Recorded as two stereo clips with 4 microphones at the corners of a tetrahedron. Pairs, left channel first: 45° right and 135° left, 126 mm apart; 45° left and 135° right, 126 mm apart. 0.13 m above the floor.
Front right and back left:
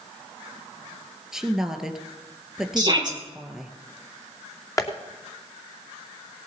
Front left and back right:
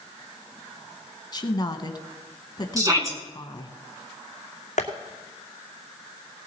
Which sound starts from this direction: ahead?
Tapping, at 4.8 s.